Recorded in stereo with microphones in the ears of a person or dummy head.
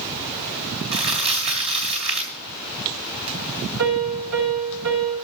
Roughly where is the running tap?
I don't hear a running tap.